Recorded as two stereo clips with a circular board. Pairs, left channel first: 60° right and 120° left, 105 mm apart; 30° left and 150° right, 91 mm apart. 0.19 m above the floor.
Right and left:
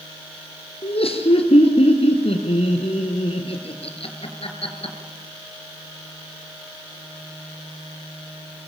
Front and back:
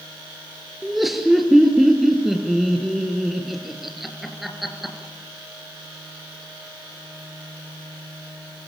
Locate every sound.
0.8 s laughter: 60° right, 4 m